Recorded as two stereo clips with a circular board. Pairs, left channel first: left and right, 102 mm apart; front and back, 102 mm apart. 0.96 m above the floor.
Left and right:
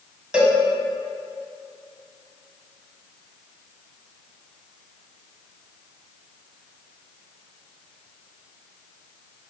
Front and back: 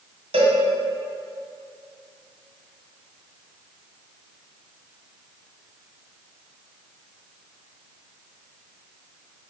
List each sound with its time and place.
0.3 s a cowbell: 170° right, 2 m